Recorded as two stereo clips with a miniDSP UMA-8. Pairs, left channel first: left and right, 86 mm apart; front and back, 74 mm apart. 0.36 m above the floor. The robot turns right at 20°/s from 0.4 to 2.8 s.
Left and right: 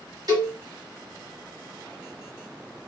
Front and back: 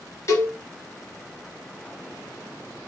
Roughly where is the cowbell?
Ahead right.